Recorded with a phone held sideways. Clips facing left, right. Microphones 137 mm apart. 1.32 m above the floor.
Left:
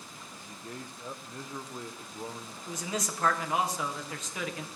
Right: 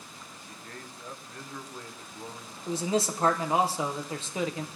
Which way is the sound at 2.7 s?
30° right (ahead or behind).